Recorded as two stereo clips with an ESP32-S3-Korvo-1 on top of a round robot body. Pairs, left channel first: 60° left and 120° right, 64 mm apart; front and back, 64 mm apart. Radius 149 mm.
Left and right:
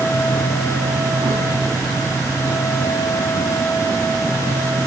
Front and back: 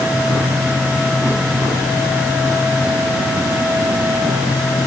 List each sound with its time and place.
Only background noise.